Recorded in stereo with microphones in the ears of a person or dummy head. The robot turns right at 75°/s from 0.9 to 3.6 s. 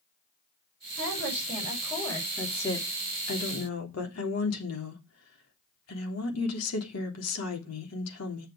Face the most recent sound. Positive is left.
turn(degrees=90)